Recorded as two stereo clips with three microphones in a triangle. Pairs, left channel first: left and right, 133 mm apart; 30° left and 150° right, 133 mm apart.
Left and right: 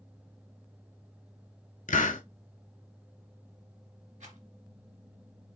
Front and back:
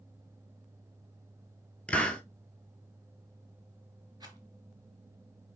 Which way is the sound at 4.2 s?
95° right.